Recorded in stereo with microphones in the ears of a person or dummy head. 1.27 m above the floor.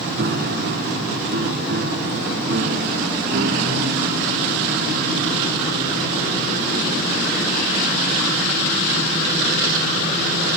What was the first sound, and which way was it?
A piano, 55° right (ahead or behind).